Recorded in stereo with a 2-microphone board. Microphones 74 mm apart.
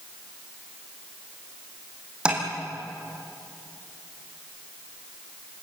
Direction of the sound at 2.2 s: 10° right (ahead or behind).